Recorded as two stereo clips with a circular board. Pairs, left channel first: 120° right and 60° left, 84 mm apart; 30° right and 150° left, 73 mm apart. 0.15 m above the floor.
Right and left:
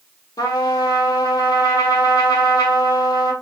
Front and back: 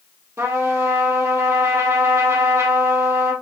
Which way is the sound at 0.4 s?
160° right.